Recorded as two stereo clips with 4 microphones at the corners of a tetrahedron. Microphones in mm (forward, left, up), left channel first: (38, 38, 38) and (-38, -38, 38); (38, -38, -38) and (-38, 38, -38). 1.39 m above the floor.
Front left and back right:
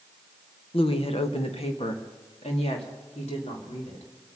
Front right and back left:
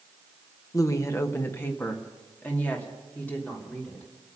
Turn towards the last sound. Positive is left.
turn(degrees=35)